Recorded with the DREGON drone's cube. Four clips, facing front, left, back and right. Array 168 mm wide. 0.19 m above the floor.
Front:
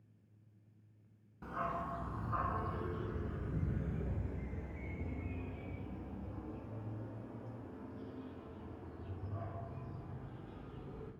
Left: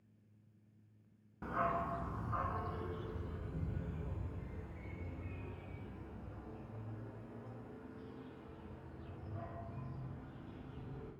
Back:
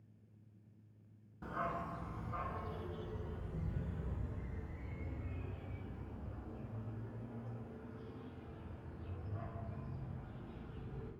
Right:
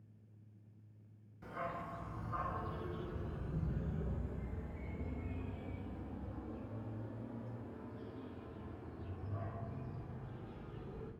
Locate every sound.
1.4 s a dog barking: 85° left, 0.6 m; by 11.1 s 30° right, 4.5 m